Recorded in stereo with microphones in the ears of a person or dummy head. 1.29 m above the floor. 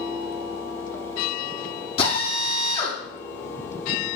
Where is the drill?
30° left (ahead or behind), 6.5 m.